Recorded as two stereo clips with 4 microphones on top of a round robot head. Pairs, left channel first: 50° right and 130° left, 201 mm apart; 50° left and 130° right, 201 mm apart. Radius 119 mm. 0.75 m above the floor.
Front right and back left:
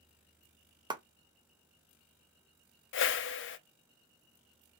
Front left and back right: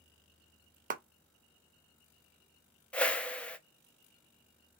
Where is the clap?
165° right, 0.6 m.